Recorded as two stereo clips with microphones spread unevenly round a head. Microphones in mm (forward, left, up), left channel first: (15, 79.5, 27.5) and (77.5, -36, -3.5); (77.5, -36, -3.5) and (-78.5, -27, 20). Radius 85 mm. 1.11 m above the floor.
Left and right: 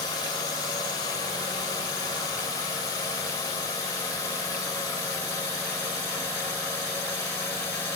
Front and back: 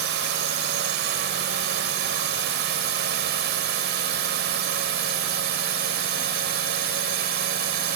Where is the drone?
175° right; by 8.0 s 165° right.